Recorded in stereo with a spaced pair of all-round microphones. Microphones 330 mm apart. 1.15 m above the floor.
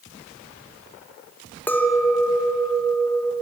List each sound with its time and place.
1.7 s a clink: 5° left (ahead or behind), 0.6 m